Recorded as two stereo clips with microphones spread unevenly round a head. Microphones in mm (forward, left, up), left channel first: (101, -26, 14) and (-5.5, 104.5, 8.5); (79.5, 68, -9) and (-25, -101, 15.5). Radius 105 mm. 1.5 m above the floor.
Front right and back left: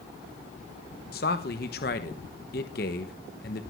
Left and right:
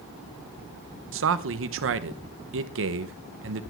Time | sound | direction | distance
1.1 | a man speaking | 100° right | 1.2 m